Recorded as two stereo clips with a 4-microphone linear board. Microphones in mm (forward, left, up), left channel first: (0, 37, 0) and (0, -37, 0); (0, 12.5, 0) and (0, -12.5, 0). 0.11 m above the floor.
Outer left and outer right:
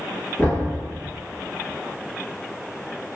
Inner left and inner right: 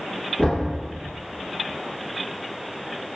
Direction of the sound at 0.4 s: 30° left (ahead or behind).